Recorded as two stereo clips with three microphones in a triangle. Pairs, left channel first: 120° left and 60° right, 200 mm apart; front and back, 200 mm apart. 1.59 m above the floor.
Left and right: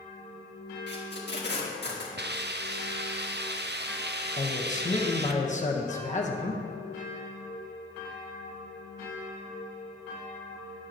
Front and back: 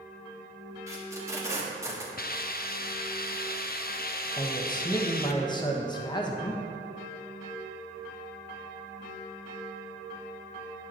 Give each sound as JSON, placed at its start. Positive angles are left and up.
{"t": 0.9, "sound": "tape being pulled", "azimuth_deg": 105, "distance_m": 1.5}
{"t": 2.2, "sound": "a hiss", "azimuth_deg": -35, "distance_m": 0.5}
{"t": 4.4, "sound": "a man speaking", "azimuth_deg": 65, "distance_m": 1.2}